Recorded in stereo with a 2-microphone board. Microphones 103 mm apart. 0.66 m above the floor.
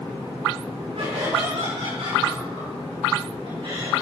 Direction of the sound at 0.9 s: 65° right (ahead or behind).